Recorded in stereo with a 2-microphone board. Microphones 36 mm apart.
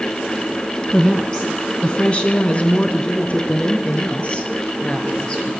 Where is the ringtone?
I don't hear a ringtone.